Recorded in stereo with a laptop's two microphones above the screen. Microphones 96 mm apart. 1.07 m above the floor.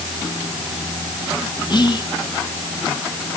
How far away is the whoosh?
I don't hear a whoosh.